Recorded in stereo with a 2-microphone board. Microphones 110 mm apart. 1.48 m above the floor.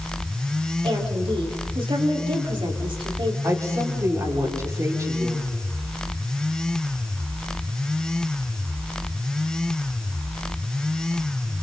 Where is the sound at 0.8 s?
55° right (ahead or behind), 4 m.